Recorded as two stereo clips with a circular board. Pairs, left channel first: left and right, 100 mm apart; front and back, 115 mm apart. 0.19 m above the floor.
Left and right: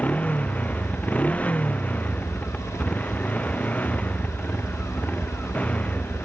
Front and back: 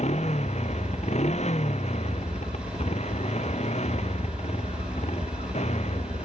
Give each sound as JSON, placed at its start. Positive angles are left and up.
{"t": 0.0, "sound": "a motorcycle", "azimuth_deg": 15}